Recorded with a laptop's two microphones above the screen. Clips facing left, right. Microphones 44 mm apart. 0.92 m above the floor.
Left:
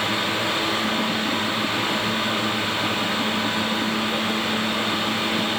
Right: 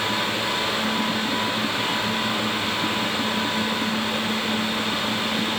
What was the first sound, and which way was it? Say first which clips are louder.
A fan: left 1 dB; 65° left (ahead or behind).